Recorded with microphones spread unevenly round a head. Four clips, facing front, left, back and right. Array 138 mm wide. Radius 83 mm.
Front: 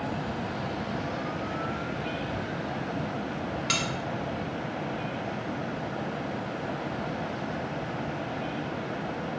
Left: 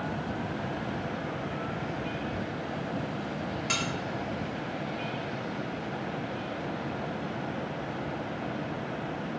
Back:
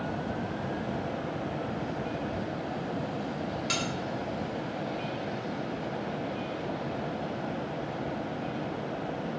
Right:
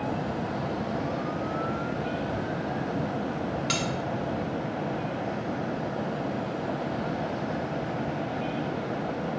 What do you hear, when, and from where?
3.7 s cutlery clinking: 25° left, 0.7 m